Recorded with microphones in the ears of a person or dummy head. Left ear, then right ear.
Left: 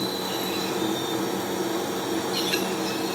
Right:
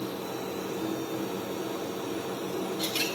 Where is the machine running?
20° left (ahead or behind), 0.9 m.